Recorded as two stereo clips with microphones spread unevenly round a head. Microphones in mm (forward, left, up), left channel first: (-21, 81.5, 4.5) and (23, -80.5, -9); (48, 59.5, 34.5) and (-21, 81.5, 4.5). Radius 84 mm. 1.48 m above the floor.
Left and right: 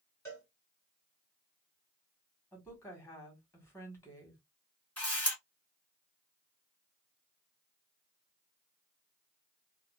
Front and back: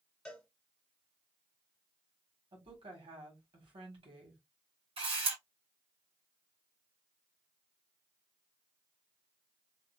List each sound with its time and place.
0.2 s a cowbell: 35° left, 1.6 m
2.5 s a woman speaking: straight behind, 1.5 m
5.0 s a camera shutter: 175° right, 1.6 m